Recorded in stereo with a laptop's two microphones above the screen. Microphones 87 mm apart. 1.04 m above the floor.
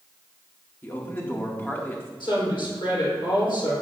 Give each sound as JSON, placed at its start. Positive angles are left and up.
{"t": 0.8, "sound": "a man speaking", "side_deg": 25, "distance_m": 1.8}
{"t": 2.2, "sound": "a woman speaking", "side_deg": 70, "distance_m": 3.5}